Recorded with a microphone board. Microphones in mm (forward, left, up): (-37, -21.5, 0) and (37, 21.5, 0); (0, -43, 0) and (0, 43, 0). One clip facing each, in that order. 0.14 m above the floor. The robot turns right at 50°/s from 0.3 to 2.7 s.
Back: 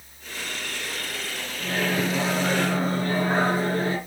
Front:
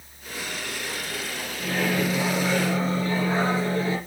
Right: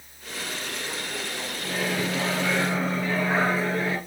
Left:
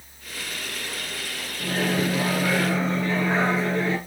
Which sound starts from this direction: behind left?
A microwave, at 1.6 s.